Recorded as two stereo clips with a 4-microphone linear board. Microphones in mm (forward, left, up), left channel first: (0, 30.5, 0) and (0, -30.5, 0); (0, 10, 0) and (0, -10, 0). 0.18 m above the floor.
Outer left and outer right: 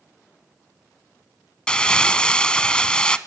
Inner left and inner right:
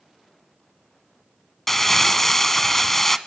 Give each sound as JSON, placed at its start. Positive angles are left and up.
{"t": 1.7, "sound": "crumpling", "side_deg": 15, "distance_m": 0.6}